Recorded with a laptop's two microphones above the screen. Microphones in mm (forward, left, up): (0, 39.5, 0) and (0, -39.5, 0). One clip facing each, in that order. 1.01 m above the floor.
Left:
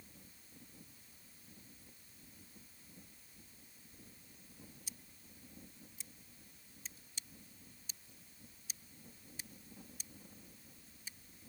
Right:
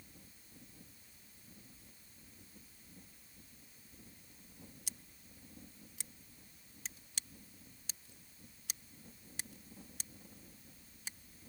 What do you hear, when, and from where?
4.9 s scissors: 80° right